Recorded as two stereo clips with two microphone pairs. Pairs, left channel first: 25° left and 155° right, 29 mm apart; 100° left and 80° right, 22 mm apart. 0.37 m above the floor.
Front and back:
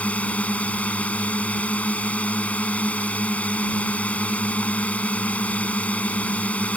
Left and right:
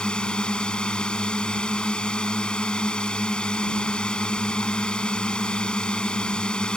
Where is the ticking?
I don't hear ticking.